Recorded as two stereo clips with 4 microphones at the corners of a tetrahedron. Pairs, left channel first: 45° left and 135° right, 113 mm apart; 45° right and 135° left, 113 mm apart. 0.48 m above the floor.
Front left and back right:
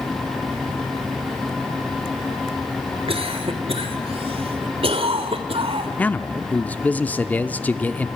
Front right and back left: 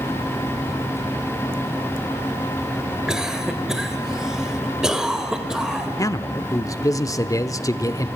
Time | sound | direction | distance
3.1 | a cough | 140° right | 2 m
6.0 | a man speaking | 20° right | 0.8 m